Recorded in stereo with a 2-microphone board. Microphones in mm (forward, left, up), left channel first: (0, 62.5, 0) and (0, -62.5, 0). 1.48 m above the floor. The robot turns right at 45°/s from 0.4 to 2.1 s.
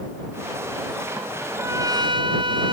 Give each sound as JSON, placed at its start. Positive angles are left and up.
{"t": 1.4, "sound": "a trumpet", "azimuth_deg": -170}